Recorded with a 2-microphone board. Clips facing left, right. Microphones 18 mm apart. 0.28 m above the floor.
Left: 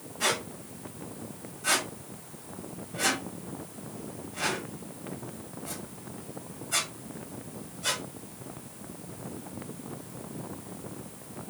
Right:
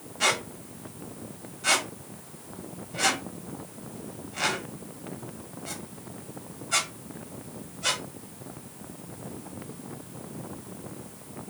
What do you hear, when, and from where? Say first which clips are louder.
0.2 s a squeak: right 3 dB; 40° right (ahead or behind), 1.1 m